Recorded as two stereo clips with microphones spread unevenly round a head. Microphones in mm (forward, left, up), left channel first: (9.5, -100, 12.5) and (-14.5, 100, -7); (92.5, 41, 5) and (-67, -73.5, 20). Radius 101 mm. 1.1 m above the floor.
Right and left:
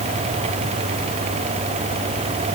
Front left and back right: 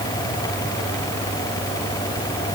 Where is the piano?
No piano in this recording.